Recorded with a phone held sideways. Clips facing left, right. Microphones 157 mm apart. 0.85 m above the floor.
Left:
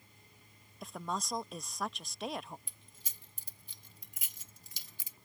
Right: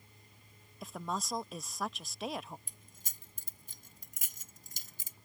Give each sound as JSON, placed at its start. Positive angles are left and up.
{"t": 0.8, "sound": "a woman speaking", "side_deg": 0}
{"t": 2.7, "sound": "keys jangling", "side_deg": -45}